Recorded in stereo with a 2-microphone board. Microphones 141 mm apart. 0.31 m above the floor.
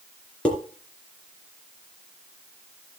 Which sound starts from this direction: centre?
Dishes clattering, at 0.5 s.